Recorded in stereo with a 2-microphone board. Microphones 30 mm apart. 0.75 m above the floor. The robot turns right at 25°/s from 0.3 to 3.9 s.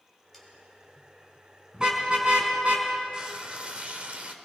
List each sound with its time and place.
0.3 s sawing: 5° left (ahead or behind), 5 m
1.7 s a car horn: 25° right (ahead or behind), 4.5 m; by 2.9 s 55° right (ahead or behind), 4.5 m
3.1 s frying: 25° right (ahead or behind), 1.5 m; by 4.3 s 45° right (ahead or behind), 1.5 m